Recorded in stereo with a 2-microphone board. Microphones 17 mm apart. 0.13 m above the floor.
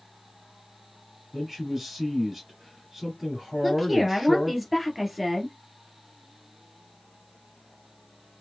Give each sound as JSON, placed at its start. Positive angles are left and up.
{"t": 1.3, "sound": "a man speaking", "side_deg": -20, "distance_m": 2.0}
{"t": 3.6, "sound": "a woman speaking", "side_deg": -5, "distance_m": 2.0}